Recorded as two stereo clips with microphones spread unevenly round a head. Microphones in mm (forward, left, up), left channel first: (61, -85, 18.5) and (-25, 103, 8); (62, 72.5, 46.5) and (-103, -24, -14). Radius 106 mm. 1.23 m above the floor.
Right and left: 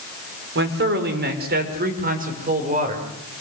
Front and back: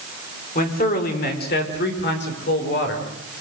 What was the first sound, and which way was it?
A man speaking, 80° left.